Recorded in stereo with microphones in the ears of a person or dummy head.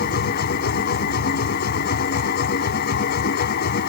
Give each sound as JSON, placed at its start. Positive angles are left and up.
{"t": 0.0, "sound": "a machine running", "side_deg": 60}